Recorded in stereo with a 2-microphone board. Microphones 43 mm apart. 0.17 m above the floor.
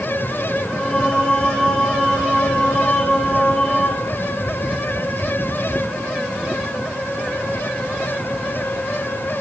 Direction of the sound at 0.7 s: 25° left (ahead or behind).